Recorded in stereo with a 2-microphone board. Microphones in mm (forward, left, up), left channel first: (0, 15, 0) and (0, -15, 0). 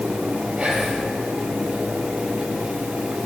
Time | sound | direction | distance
0.6 | whispering | 25° right (ahead or behind) | 5.5 m